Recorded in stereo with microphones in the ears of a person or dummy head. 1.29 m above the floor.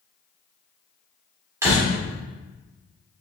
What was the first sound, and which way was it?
A door slam, 15° right (ahead or behind).